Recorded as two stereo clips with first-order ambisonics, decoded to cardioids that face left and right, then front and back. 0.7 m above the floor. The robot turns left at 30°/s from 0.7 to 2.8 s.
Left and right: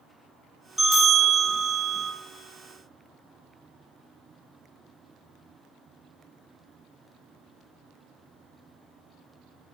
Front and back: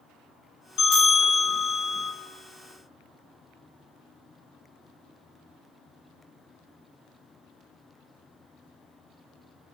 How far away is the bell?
About 1.0 m.